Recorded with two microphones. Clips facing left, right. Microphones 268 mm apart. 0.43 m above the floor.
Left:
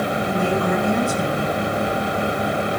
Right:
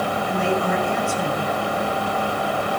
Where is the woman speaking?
45° left (ahead or behind), 4.5 m.